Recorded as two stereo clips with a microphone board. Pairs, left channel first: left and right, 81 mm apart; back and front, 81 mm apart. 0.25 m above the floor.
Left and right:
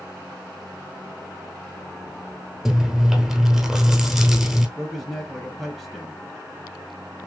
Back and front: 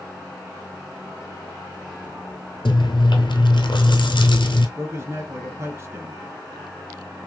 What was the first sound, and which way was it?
Chewing, 175° right.